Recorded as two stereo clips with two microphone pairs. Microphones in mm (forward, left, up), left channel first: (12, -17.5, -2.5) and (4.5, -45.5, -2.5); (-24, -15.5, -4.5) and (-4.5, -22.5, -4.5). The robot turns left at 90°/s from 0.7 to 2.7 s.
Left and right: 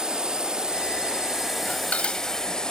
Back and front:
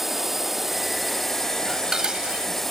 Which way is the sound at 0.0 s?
90° right.